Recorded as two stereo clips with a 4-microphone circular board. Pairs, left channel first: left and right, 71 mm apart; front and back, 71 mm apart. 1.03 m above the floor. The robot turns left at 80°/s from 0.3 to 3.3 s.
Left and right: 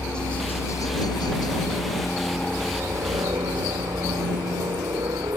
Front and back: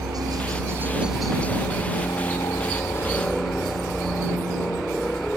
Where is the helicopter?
165° left; by 5.4 s 75° right.